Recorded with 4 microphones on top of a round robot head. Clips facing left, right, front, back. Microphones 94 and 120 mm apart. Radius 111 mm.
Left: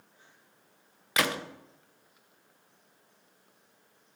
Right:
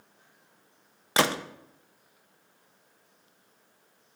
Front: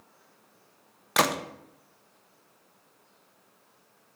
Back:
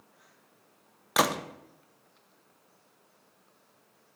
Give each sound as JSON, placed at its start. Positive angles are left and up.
{"t": 1.2, "sound": "a gunshot", "azimuth_deg": -95, "distance_m": 0.7}